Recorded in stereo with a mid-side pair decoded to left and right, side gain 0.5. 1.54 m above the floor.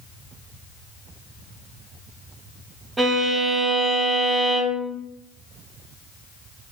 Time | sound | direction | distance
3.0 | a violin | 20° right | 0.6 m